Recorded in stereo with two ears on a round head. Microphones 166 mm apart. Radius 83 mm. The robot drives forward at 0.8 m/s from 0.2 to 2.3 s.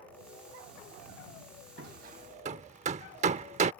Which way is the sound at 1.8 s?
60° right (ahead or behind).